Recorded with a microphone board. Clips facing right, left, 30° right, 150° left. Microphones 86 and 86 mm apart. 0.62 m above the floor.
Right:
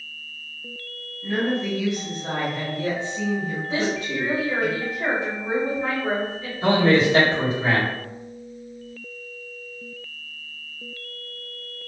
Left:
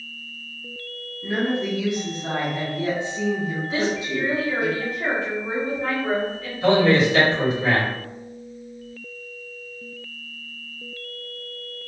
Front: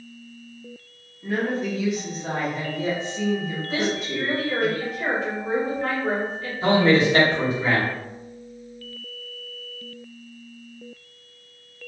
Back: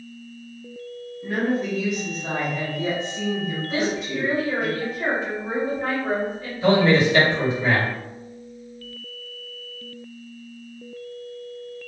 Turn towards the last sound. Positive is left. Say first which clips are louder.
# left 1 dB, back 1 dB
turn(degrees=-60)